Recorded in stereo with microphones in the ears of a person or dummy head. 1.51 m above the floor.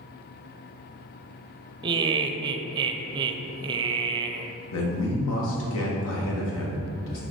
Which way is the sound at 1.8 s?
25° right (ahead or behind).